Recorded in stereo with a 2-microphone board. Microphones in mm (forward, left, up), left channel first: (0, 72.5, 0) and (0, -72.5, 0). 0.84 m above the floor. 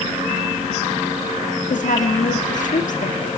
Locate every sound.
1.7 s a woman speaking: 65° left (ahead or behind), 1.6 m